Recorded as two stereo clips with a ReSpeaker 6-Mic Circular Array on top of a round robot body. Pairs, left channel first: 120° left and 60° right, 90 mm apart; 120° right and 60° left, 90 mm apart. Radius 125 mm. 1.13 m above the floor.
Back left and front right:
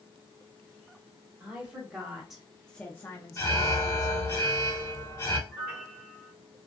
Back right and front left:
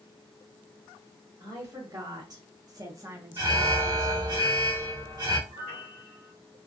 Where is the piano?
130° right, 0.9 m.